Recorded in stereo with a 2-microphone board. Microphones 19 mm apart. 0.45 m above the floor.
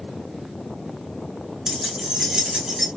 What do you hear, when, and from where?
1.7 s keys jangling: 35° right (ahead or behind), 0.8 m